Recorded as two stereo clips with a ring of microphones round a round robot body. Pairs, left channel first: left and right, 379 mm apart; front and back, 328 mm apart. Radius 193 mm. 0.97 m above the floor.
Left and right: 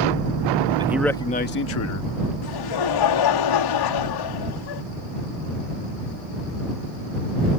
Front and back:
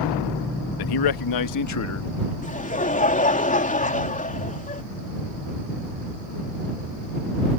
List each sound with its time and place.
0.8 s a man speaking: 10° right; by 2.3 s 50° left
2.4 s laughter: 65° left